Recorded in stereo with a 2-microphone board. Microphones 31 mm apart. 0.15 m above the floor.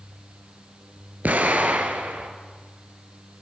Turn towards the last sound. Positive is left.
turn(degrees=-60)  # may be behind; listen again after turning